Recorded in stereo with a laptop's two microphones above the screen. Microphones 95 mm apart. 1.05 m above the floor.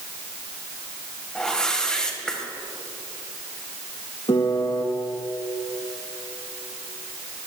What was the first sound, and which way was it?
A whoosh, 10° left (ahead or behind).